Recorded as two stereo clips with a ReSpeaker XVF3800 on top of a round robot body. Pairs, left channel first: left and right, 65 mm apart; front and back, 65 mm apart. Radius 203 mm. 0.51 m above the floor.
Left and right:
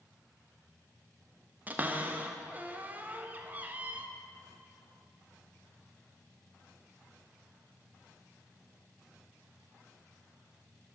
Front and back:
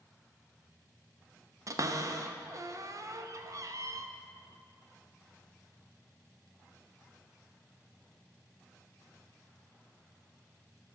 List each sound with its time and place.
1.7 s a cupboard door: 150° right, 0.8 m